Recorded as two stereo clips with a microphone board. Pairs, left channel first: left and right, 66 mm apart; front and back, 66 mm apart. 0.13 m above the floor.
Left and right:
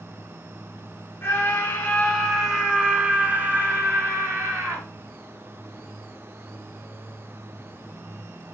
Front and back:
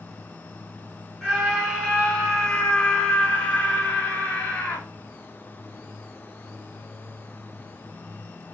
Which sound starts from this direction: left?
A scream, at 1.2 s.